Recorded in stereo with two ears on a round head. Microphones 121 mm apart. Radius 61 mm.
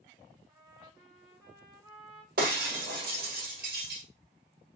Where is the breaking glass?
75° right (ahead or behind), 1.4 m.